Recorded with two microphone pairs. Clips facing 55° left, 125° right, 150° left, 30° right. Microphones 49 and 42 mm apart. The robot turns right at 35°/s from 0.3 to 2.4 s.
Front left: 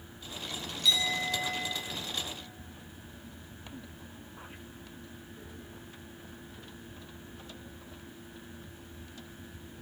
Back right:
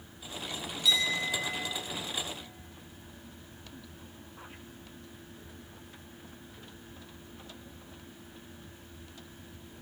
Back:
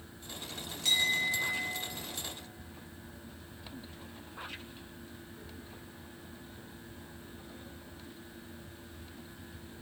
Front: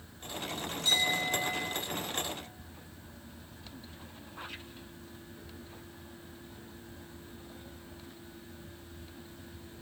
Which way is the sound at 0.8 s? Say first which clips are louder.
Even, even; 150° left.